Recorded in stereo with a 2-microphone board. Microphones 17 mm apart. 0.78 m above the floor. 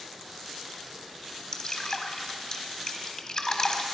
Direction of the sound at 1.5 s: 35° left (ahead or behind).